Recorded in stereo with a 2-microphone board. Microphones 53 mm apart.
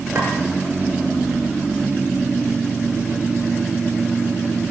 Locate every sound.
0.1 s a clink: 55° right (ahead or behind), 1.9 m